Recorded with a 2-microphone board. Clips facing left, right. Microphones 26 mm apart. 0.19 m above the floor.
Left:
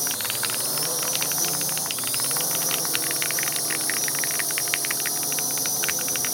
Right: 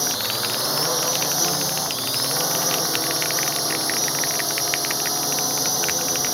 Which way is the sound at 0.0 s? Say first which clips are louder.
Right 4 dB; 40° right (ahead or behind).